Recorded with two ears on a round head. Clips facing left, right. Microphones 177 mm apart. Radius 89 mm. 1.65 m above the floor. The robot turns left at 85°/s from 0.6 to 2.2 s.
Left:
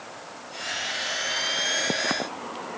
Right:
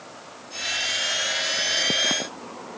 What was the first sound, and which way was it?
Only background noise.